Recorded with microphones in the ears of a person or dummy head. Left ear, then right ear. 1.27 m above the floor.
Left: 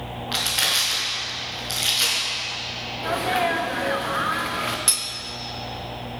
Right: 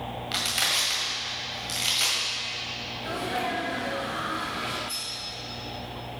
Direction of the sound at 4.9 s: 65° left (ahead or behind).